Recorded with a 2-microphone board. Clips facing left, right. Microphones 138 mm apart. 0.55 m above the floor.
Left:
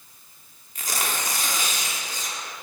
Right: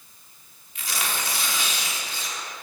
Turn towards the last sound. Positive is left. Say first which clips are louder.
# left 1 dB
turn(degrees=45)  # may be behind; listen again after turning